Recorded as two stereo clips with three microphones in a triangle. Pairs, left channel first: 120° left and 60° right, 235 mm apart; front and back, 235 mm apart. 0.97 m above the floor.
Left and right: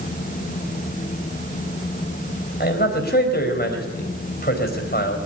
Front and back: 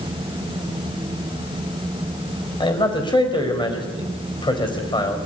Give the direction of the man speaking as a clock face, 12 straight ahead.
10 o'clock.